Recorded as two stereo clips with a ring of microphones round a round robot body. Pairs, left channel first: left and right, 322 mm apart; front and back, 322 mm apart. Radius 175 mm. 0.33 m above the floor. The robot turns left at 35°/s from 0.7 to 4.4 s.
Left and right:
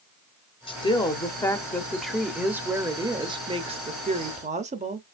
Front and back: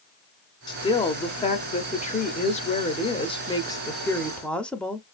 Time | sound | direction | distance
0.7 | a woman speaking | 50° left | 0.8 m